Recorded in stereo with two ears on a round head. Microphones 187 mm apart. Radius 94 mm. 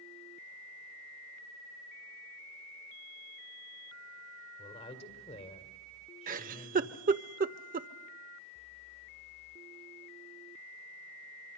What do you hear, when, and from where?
4.6 s a woman speaking: 30° left (ahead or behind), 2.0 m
6.3 s a giggle: 40° right (ahead or behind), 0.6 m